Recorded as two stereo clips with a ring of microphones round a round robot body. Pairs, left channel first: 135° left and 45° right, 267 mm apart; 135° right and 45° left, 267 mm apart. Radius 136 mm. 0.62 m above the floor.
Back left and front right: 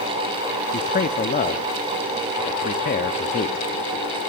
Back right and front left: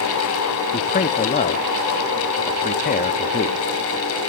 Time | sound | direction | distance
0.7 | a man speaking | straight behind | 0.8 m